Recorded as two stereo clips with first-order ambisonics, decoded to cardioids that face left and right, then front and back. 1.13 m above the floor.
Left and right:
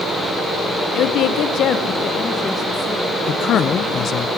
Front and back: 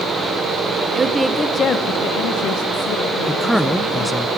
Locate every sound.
0.9 s a woman speaking: 120° left, 0.9 m; by 4.3 s 5° left, 3 m
3.3 s a man speaking: 85° left, 0.6 m